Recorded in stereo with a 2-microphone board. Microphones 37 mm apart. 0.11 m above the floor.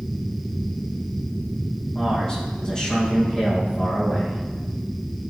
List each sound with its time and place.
1.9 s a man speaking: 25° left (ahead or behind), 5 m